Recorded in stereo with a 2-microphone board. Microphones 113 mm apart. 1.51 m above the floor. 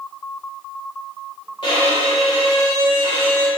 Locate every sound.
1.6 s a violin: 50° left (ahead or behind), 1.7 m